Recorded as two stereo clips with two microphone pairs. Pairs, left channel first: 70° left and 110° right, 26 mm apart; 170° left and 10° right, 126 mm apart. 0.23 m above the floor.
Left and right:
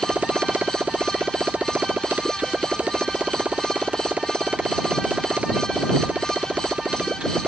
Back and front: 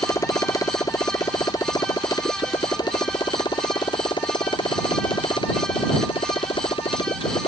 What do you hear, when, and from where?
0.0 s a motorcycle: 125° right; by 7.5 s 145° right